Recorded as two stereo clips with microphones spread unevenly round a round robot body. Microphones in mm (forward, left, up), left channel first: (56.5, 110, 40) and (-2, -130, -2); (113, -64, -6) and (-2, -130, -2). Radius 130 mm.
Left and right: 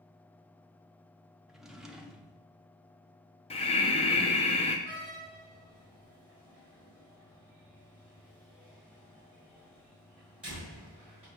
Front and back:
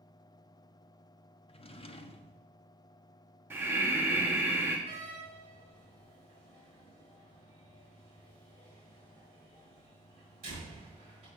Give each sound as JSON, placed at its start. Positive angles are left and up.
{"t": 1.5, "sound": "a drawer", "azimuth_deg": -20, "distance_m": 0.7}
{"t": 3.5, "sound": "breathing", "azimuth_deg": 140, "distance_m": 0.7}
{"t": 4.9, "sound": "a door slam", "azimuth_deg": 170, "distance_m": 4.0}